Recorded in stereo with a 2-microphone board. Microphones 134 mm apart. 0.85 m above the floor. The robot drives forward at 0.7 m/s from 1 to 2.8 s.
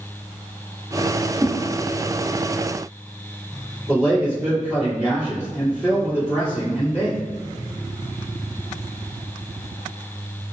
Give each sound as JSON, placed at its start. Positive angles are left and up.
{"t": 1.4, "sound": "a whoosh", "side_deg": -25, "distance_m": 0.7}
{"t": 3.9, "sound": "a man speaking", "side_deg": -15, "distance_m": 2.0}